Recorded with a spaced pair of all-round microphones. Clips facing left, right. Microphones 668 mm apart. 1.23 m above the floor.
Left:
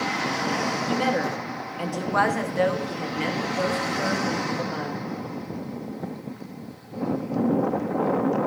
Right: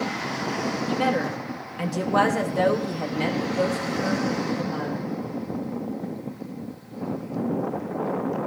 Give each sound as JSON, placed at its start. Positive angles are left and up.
{"t": 0.9, "sound": "a woman speaking", "side_deg": -25, "distance_m": 0.9}